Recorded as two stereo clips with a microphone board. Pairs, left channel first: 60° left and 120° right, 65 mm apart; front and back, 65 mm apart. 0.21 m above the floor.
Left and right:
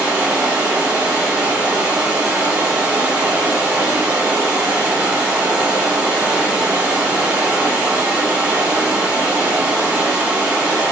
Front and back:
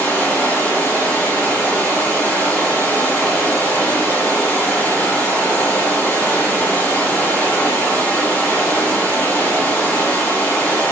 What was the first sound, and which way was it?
Running water, 60° right.